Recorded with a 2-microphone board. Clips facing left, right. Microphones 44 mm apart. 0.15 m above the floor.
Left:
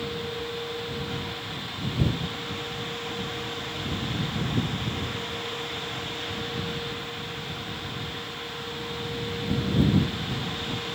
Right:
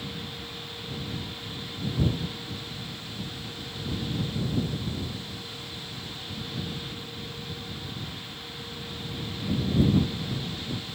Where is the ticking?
I don't hear ticking.